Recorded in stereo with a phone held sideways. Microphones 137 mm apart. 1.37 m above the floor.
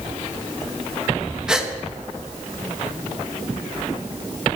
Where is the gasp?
5° right (ahead or behind), 1.5 m.